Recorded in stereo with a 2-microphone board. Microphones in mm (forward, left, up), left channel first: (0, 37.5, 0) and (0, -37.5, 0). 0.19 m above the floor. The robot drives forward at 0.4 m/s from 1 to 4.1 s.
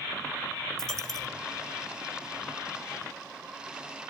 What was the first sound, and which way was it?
A dropped coin, 5° left (ahead or behind).